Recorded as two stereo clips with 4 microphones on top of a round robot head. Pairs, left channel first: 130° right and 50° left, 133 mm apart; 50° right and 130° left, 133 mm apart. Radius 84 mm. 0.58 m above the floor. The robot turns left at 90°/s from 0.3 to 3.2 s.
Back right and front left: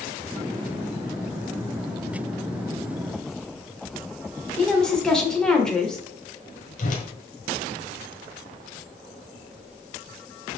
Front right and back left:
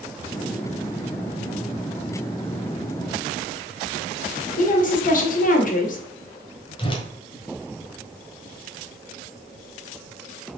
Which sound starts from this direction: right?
A whoosh, at 6.8 s.